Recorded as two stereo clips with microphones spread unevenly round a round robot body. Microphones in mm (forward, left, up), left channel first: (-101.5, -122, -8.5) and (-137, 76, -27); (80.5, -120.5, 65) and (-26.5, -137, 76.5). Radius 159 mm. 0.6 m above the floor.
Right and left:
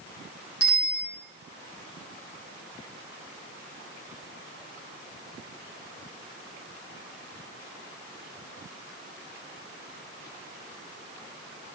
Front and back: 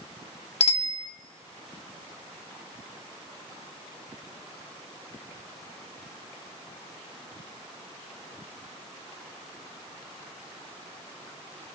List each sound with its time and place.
0.6 s a bicycle bell: 15° right, 2.5 m